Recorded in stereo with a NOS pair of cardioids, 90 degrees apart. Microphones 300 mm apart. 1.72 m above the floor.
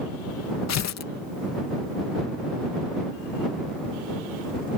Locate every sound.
0.7 s tearing paper: 60° left